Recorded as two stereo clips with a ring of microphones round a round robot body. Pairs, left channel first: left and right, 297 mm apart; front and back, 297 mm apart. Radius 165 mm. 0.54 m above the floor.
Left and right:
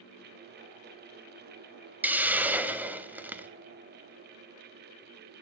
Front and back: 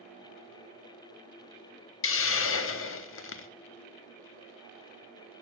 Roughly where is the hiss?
Ahead.